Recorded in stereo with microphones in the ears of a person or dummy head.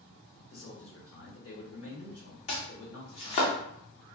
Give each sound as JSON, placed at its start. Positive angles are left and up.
{"t": 0.5, "sound": "a man speaking", "side_deg": 75, "distance_m": 1.3}
{"t": 2.5, "sound": "chopping", "side_deg": 40, "distance_m": 0.7}